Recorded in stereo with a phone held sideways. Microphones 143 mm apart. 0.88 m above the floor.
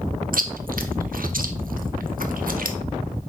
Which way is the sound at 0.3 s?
80° right.